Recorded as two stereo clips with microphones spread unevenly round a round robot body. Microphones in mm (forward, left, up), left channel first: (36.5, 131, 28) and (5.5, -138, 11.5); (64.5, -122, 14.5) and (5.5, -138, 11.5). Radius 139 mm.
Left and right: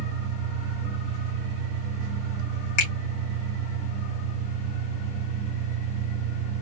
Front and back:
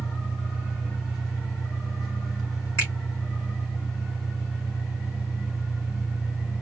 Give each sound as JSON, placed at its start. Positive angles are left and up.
{"t": 0.0, "sound": "an engine running", "azimuth_deg": 45, "distance_m": 2.5}
{"t": 2.8, "sound": "a finger snap", "azimuth_deg": 75, "distance_m": 2.0}